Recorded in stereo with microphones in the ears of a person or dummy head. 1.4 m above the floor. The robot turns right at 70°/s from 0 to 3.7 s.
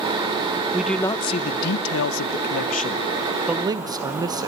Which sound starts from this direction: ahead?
A man speaking, at 0.7 s.